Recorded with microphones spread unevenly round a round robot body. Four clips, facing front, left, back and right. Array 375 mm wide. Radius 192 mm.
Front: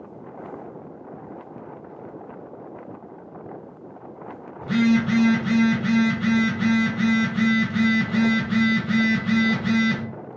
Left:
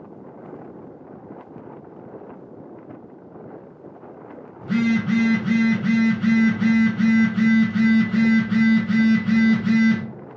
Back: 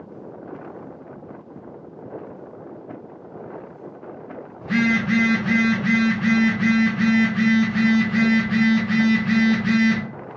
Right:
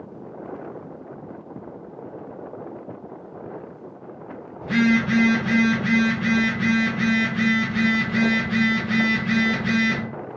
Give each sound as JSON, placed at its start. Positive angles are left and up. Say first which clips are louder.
{"t": 4.6, "sound": "a phone buzzing", "louder": "right 1 dB, front 1 dB", "azimuth_deg": 30, "distance_m": 1.3}